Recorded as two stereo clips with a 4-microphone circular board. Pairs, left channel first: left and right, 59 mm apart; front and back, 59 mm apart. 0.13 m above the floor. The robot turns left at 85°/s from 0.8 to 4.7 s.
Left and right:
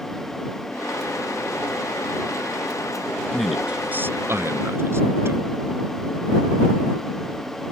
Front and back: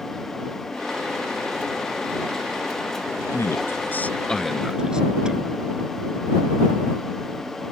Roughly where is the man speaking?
Ahead.